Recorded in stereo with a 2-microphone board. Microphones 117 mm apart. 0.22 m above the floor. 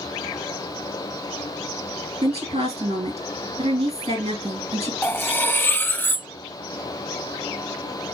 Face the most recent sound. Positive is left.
turn(degrees=15)  # may be behind; listen again after turning